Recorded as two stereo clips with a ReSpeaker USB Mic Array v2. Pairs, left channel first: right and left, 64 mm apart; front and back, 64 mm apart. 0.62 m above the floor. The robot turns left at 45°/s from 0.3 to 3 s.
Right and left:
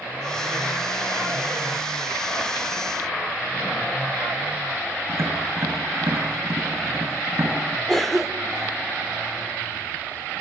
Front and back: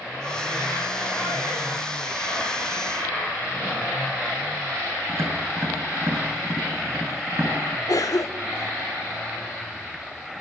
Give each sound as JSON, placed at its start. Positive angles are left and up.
{"t": 5.1, "sound": "tapping", "azimuth_deg": 135, "distance_m": 4.5}
{"t": 7.9, "sound": "a cough", "azimuth_deg": -5, "distance_m": 1.5}